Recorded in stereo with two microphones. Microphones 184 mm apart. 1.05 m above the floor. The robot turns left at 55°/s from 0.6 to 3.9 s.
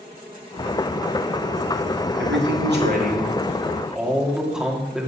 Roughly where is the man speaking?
Right.